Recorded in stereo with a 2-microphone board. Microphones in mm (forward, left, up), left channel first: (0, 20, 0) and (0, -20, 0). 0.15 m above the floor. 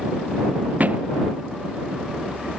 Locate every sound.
0.8 s a thud: 40° right (ahead or behind)